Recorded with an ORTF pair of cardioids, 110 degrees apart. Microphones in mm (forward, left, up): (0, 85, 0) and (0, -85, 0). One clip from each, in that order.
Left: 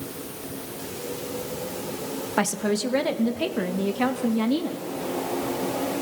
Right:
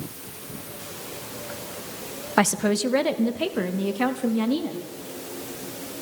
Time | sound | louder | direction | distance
2.4 | a woman speaking | right 4 dB | 25° right | 1.3 m